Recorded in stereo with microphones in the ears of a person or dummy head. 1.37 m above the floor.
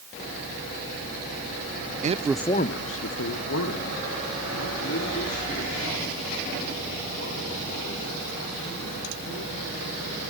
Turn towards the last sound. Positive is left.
turn(degrees=75)  # may be behind; listen again after turning